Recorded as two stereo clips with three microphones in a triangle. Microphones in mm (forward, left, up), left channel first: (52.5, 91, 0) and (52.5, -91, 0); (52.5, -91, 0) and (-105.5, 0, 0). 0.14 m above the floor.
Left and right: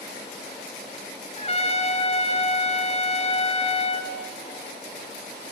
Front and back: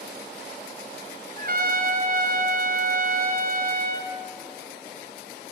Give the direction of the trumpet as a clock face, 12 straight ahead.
8 o'clock.